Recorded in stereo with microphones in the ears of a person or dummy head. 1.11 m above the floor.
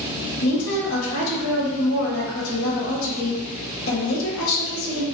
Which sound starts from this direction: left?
A woman speaking, at 0.4 s.